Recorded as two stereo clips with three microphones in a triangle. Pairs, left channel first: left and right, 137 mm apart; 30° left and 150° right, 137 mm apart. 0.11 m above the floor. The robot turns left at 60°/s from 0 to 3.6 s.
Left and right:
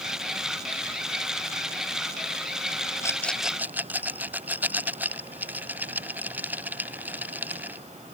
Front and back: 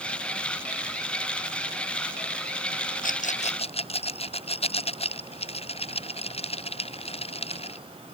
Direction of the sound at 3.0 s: 20° left.